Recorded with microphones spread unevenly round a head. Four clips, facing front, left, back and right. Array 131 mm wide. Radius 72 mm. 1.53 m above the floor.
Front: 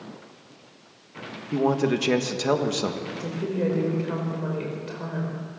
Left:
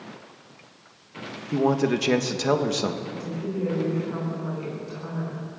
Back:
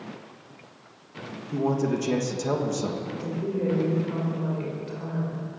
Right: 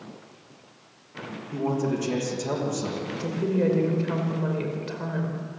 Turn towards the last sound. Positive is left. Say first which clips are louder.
# right 4 dB, even
turn(degrees=-40)